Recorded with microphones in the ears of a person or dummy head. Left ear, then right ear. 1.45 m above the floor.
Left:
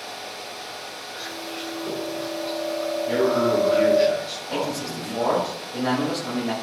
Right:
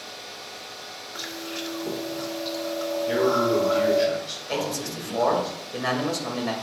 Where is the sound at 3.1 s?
15° right (ahead or behind), 3 m.